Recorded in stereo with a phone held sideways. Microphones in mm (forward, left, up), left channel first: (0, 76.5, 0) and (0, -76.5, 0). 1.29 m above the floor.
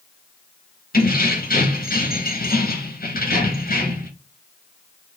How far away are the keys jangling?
About 1.1 m.